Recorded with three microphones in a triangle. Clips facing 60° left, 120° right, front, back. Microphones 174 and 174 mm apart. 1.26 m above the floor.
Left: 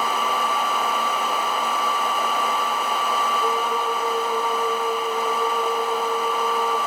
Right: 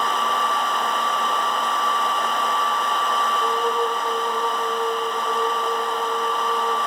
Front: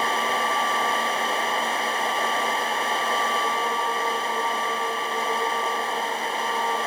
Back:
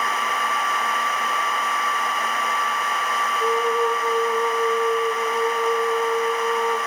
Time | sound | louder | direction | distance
3.4 | a flute | right 1 dB, back 6 dB | 160° left | 3 m